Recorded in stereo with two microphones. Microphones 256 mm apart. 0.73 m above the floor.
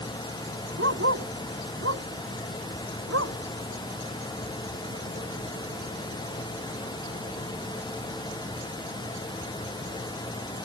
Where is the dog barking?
60° right (ahead or behind); by 3.4 s 70° right (ahead or behind).